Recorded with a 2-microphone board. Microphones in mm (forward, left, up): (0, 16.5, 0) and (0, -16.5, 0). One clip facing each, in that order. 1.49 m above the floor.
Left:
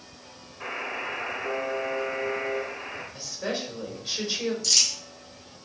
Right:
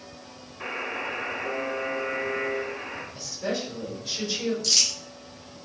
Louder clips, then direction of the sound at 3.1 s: Right 1 dB; 15° left (ahead or behind).